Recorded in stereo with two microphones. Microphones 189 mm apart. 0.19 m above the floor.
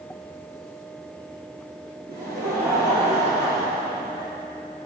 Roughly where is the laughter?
Right.